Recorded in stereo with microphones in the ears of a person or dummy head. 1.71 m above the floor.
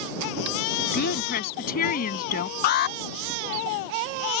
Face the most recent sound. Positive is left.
turn(degrees=55)  # may be behind; listen again after turning